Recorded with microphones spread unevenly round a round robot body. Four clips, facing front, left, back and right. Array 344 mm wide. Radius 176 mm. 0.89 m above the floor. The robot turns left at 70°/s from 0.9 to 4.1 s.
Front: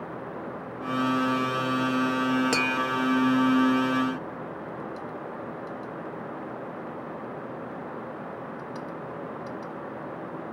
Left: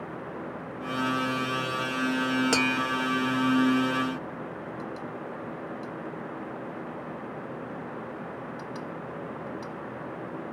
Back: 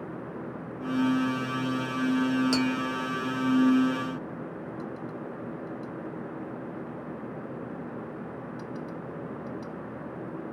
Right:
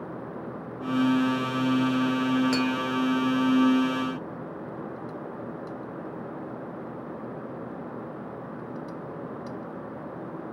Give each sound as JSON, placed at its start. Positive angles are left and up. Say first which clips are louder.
{"t": 2.5, "sound": "tapping", "louder": "right 1 dB, even", "azimuth_deg": 45, "distance_m": 0.6}